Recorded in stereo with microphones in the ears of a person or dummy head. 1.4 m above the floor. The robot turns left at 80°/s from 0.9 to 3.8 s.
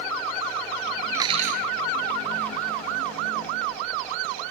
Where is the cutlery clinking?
15° right; by 1.7 s 60° right.